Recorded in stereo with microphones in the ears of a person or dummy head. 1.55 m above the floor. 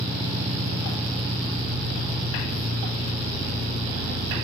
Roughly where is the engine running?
Right.